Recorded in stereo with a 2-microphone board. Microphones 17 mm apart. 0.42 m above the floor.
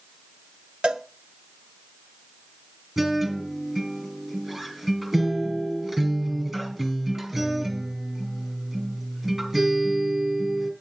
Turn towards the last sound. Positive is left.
turn(degrees=-25)  # may be behind; listen again after turning